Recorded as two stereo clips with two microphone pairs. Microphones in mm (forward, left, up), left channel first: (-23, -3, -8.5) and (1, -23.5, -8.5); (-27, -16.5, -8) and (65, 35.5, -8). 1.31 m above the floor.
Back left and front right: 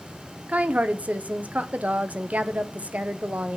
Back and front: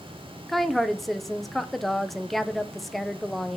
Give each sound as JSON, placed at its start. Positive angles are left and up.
{"t": 0.5, "sound": "a woman speaking", "azimuth_deg": -60, "distance_m": 0.8}